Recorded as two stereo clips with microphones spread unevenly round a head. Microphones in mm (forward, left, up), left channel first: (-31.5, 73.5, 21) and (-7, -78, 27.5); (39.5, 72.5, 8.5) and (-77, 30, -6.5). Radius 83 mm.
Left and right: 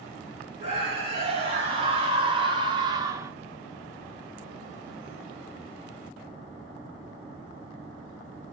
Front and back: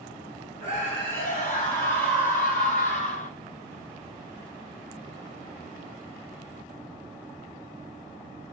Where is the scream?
25° right, 2 m; by 3.3 s 5° right, 0.6 m.